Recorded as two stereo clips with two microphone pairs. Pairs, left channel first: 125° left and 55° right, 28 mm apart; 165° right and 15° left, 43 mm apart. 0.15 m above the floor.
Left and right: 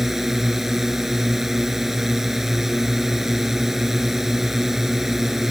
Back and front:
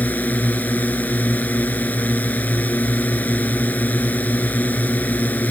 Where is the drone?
130° right.